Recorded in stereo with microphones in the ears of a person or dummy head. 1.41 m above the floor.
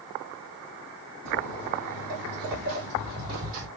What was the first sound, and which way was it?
Footsteps, 55° right (ahead or behind).